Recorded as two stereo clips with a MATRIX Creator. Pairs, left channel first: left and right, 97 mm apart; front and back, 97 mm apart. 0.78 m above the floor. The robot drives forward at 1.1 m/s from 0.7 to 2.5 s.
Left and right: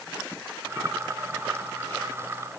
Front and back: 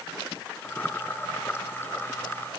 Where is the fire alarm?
I don't hear a fire alarm.